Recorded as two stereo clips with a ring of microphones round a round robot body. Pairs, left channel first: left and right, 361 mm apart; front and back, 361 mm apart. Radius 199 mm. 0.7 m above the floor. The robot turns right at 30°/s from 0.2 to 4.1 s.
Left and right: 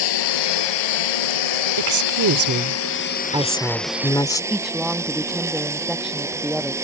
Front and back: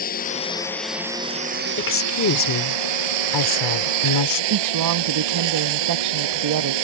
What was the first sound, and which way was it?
A lawn mower, 70° left.